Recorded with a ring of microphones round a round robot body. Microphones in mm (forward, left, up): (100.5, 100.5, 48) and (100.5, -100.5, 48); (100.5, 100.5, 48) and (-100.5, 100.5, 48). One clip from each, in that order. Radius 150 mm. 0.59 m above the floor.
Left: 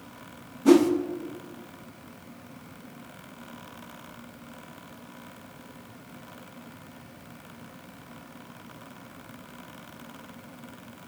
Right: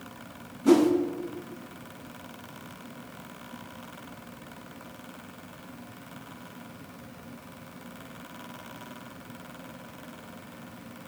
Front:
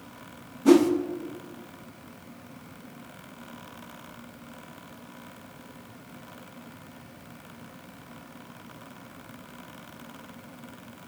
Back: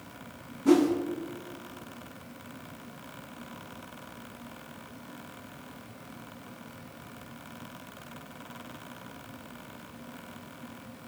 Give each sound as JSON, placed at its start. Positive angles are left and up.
{"t": 0.7, "sound": "a whoosh", "azimuth_deg": 35, "distance_m": 0.6}